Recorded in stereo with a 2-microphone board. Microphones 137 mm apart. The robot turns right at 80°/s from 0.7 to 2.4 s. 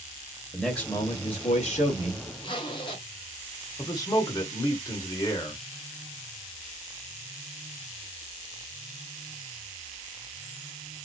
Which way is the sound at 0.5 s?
5° left.